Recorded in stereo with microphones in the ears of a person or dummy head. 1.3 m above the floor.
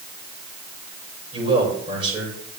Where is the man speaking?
30° right (ahead or behind), 6.5 m.